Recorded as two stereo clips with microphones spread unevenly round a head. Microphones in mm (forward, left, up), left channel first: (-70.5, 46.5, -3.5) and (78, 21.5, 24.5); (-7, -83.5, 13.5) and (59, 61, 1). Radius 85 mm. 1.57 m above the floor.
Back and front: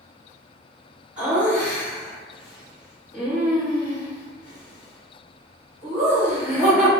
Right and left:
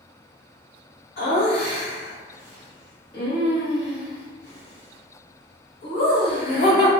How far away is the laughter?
About 1.2 m.